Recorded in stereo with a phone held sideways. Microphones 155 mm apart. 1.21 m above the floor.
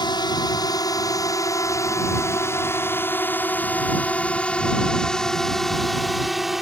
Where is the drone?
30° left (ahead or behind); by 6.6 s centre (ahead or behind).